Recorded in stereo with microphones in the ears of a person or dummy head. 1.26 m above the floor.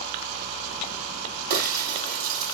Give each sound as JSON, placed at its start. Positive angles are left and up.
{"t": 1.5, "sound": "breaking glass", "side_deg": -45, "distance_m": 6.0}